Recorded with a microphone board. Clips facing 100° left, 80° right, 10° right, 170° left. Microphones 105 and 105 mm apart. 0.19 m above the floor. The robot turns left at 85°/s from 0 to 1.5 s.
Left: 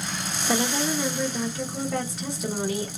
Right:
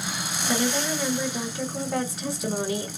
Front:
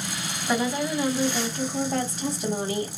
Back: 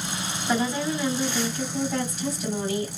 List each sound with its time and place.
0.5 s a woman speaking: 80° left, 1.1 m; by 2.9 s 10° right, 1.1 m